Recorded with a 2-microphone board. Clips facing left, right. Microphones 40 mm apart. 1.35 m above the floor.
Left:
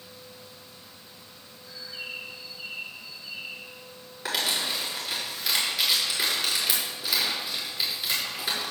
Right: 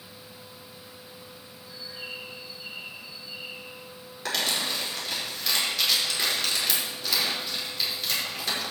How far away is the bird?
About 2 m.